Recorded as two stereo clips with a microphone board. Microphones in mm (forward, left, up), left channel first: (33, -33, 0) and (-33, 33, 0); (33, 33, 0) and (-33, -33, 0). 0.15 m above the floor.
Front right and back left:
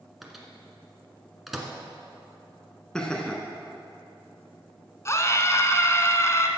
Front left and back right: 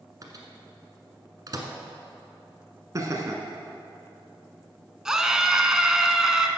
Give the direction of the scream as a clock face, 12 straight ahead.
2 o'clock.